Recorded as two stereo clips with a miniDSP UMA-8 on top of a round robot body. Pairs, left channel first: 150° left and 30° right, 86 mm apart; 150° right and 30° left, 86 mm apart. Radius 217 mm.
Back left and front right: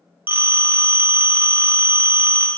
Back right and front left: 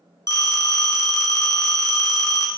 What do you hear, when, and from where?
0.3 s a phone ringing: 100° right, 1.4 m